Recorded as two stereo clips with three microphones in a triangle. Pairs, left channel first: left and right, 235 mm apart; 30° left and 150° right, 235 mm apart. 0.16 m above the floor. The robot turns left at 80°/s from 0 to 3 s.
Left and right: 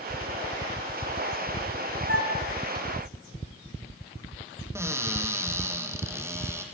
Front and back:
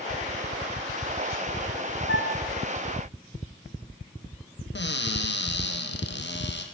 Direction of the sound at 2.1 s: 70° left.